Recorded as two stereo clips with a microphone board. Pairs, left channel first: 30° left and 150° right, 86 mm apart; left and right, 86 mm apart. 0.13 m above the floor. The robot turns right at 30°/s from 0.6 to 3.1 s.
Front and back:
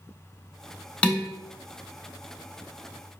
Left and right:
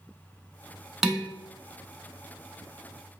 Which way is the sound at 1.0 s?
15° right.